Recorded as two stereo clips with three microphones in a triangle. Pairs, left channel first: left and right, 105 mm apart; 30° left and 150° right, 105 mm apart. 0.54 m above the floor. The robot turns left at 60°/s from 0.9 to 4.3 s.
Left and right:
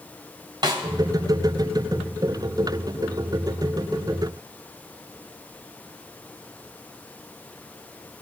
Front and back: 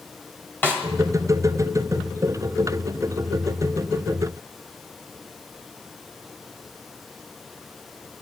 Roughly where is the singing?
No singing in this recording.